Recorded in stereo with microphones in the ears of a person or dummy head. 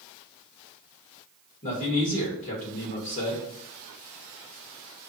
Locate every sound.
1.6 s a man speaking: 40° left (ahead or behind), 2.5 m